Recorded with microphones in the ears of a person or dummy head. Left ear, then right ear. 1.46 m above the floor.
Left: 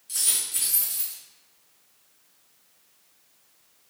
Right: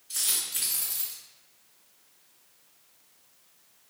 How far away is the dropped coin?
About 1.9 m.